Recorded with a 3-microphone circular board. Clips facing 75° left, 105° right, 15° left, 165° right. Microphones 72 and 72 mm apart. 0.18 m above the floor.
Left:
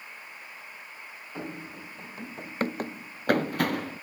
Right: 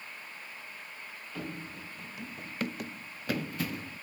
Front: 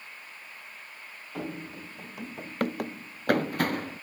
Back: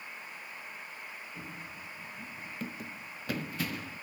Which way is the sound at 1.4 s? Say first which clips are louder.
Left 2 dB, front 7 dB; 5° left.